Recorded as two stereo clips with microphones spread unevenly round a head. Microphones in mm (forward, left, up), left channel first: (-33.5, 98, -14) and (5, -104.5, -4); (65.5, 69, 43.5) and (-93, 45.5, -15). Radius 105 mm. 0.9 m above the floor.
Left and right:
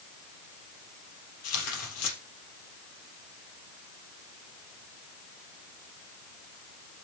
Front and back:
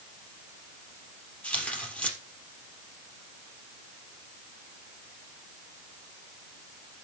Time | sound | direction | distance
1.4 | tearing paper | 85° left | 3.5 m